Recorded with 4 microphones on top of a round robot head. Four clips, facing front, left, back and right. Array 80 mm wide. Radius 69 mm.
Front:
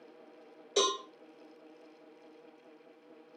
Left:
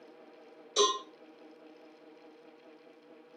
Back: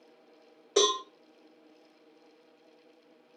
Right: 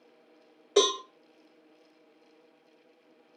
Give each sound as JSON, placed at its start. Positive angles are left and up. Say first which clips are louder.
{"t": 0.8, "sound": "a cowbell", "louder": "right 4 dB, back 4 dB", "azimuth_deg": -125, "distance_m": 2.5}